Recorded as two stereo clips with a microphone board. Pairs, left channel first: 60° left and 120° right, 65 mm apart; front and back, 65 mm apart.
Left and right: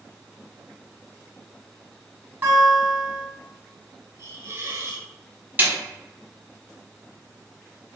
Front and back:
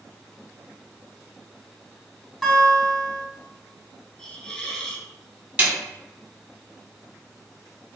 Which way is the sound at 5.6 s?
130° right.